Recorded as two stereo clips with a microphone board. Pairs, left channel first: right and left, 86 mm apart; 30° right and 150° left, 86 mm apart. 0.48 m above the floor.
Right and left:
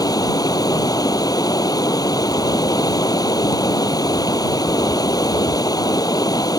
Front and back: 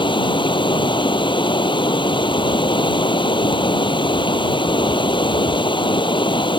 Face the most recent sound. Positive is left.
turn(degrees=-50)